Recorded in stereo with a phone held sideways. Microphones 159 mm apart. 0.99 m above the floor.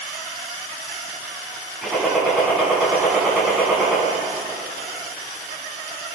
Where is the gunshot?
5° right (ahead or behind), 8.5 m.